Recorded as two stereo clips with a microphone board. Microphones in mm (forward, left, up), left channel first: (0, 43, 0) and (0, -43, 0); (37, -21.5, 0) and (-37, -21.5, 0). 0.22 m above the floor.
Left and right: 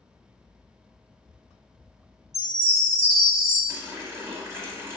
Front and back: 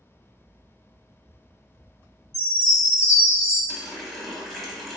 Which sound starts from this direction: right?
A running tap, at 3.7 s.